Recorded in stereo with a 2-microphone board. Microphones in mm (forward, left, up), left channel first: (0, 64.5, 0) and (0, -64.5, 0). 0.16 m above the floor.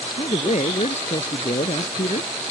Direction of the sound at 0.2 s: 60° left (ahead or behind).